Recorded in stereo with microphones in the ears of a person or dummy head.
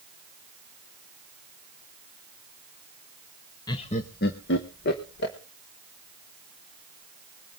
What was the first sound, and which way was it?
Laughter, 20° left (ahead or behind).